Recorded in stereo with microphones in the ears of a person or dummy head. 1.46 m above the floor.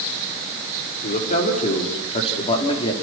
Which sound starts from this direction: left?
A man speaking, at 1.0 s.